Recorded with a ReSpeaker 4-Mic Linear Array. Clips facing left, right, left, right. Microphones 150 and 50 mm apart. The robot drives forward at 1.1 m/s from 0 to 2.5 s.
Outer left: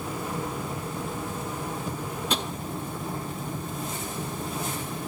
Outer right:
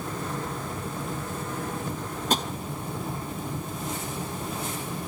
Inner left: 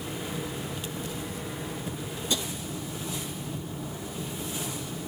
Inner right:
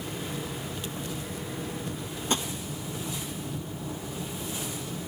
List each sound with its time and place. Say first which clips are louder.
2.3 s tapping: outer right 3 dB, inner right 2 dB; 40° right (ahead or behind), 1.1 m